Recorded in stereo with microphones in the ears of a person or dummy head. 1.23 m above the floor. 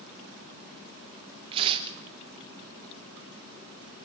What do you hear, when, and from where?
1.5 s tearing paper: 35° right (ahead or behind), 3.5 m